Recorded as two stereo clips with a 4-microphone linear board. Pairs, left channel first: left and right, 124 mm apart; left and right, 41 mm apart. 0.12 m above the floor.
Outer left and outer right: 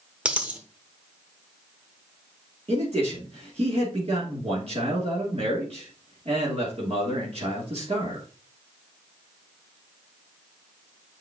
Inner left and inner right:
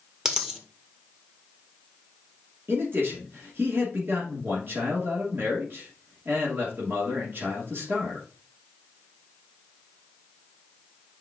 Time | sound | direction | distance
0.2 | a dropped coin | 10° right (ahead or behind) | 1.1 m
2.7 | a man speaking | 55° right (ahead or behind) | 2.5 m